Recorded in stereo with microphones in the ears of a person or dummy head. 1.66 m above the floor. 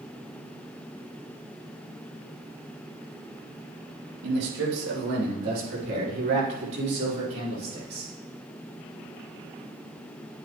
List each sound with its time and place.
4.2 s a man speaking: 70° right (ahead or behind), 3 m; by 8.1 s 30° right (ahead or behind), 6 m